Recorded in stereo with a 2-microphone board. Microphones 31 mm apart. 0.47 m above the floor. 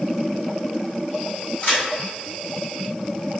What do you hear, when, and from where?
1.6 s a crack: 45° left (ahead or behind), 1.6 m